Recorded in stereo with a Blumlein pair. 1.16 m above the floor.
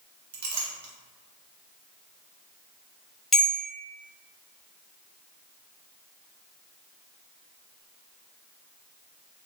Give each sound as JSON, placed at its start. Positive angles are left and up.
{"t": 0.3, "sound": "a clink", "azimuth_deg": -55, "distance_m": 0.6}
{"t": 3.3, "sound": "a bell", "azimuth_deg": 5, "distance_m": 0.6}